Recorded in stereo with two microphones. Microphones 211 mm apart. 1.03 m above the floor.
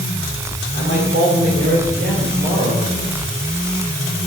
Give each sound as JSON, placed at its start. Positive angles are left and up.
{"t": 0.7, "sound": "a man speaking", "side_deg": -75, "distance_m": 2.0}